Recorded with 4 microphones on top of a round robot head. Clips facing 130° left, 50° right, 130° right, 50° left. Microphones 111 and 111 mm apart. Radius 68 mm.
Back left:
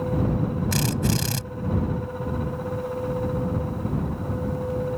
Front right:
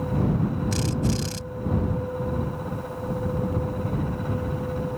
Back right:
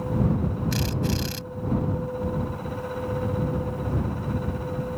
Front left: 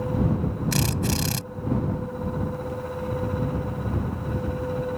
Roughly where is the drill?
Left.